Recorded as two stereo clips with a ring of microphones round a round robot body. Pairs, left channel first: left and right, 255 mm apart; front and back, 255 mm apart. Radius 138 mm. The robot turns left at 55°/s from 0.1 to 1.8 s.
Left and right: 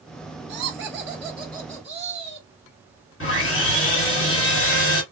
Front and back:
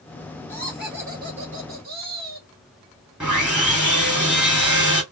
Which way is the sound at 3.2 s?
95° left.